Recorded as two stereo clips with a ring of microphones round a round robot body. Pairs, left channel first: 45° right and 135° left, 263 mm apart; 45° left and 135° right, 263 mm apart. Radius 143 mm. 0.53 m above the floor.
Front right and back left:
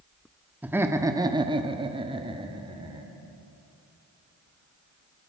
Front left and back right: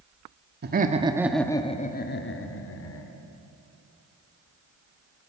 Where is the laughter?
145° right, 1.5 m; by 3.1 s 65° left, 2.5 m.